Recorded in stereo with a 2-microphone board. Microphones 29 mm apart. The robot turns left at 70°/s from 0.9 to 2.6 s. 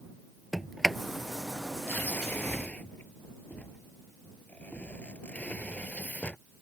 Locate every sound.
0.5 s a sliding door: centre (ahead or behind); by 6.4 s 55° left (ahead or behind)